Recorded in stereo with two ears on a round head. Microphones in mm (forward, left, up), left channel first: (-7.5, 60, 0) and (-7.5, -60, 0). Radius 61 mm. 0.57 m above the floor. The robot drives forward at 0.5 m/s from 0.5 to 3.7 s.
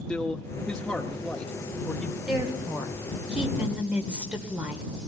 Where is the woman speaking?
5° right (ahead or behind), 3 m; by 4.9 s 10° right (ahead or behind), 2.5 m.